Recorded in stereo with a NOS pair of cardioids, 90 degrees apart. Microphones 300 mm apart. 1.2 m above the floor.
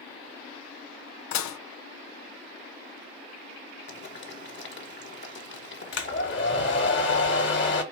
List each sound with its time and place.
1.3 s dishes clattering: 70° left, 0.6 m
3.9 s boiling: 40° left, 1.8 m
5.9 s a hair dryer: 40° left, 1.7 m